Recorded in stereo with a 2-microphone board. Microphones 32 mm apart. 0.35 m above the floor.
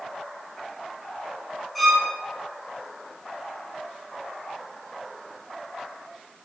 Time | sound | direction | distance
1.8 | a violin | centre (ahead or behind) | 1.0 m